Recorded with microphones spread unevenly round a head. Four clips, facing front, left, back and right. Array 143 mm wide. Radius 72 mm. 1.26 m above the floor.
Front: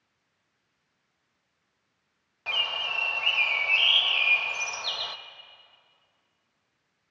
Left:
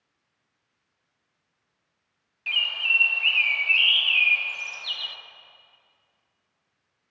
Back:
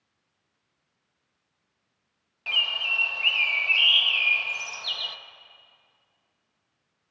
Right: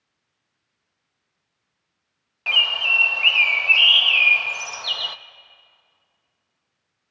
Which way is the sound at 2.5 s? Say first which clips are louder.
Right 6 dB, even; 65° right.